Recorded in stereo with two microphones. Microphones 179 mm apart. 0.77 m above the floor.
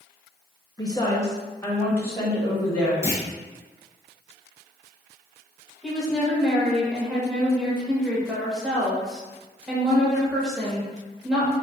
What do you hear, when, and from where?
0.8 s a woman speaking: 20° left (ahead or behind), 0.8 m; by 2.9 s 10° left (ahead or behind), 2.5 m
3.0 s a clunk: 15° right (ahead or behind), 0.7 m
5.8 s a woman speaking: centre (ahead or behind), 1.0 m